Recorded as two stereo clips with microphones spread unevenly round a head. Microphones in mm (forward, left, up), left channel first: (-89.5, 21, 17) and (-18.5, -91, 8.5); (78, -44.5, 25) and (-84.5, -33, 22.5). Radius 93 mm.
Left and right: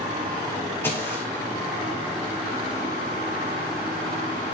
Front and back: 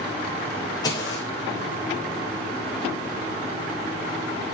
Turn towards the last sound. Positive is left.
turn(degrees=55)